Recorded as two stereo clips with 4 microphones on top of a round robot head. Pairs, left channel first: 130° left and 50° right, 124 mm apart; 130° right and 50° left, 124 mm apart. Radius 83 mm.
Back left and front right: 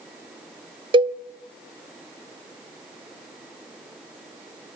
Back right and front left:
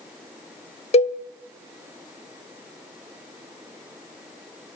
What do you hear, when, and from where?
0.9 s a cowbell: 100° right, 0.6 m